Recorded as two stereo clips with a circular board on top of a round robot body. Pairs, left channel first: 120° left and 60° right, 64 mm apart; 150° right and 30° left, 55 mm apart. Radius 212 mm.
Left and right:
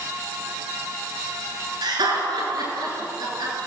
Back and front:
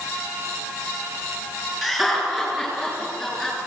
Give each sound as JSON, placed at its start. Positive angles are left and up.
{"t": 1.8, "sound": "laughter", "azimuth_deg": -60, "distance_m": 8.0}